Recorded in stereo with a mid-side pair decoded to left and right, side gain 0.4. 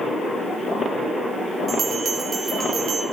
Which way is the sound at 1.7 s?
55° right.